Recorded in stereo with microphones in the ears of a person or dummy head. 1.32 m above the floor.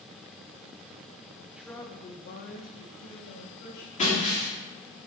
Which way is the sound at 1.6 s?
10° right (ahead or behind).